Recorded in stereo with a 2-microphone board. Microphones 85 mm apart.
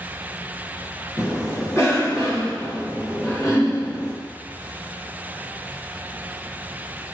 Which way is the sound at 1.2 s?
35° left (ahead or behind).